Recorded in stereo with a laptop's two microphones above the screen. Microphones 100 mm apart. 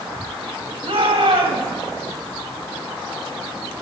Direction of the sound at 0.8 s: 70° right (ahead or behind).